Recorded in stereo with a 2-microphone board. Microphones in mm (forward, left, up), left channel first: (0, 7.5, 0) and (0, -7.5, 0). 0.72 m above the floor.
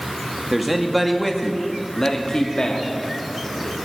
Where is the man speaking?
10° right (ahead or behind), 1.5 m; by 3.8 s 65° left (ahead or behind), 2.5 m.